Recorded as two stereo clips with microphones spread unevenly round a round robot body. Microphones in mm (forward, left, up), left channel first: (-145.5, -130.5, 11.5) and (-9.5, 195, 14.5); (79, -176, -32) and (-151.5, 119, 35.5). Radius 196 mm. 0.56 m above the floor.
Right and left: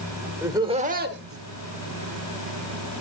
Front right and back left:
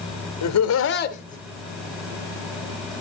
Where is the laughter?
15° right, 1.7 m; by 3.0 s 85° left, 1.8 m.